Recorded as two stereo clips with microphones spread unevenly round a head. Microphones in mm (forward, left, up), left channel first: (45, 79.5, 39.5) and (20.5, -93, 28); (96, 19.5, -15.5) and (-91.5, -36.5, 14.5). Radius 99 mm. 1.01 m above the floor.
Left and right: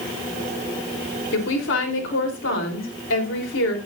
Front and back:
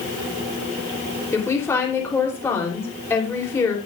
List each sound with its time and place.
1.3 s a woman speaking: 95° left, 3 m